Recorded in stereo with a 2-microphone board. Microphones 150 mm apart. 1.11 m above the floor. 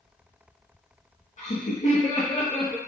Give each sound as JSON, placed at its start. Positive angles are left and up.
{"t": 1.4, "sound": "laughter", "side_deg": 55, "distance_m": 1.2}